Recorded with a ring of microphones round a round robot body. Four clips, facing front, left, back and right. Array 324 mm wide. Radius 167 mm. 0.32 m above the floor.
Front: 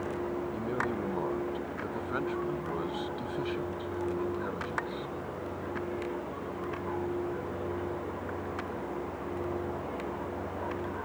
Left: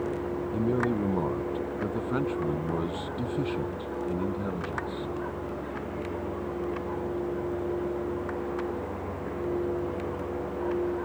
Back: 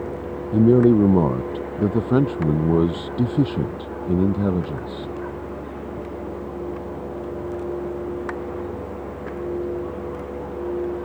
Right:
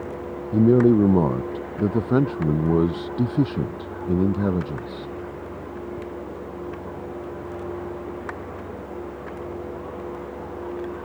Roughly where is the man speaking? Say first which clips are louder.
Right 13 dB, back 18 dB; behind right.